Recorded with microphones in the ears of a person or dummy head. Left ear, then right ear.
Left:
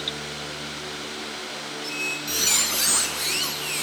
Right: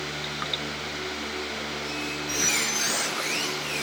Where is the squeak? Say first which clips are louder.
Left 2 dB; 30° left (ahead or behind), 5 m.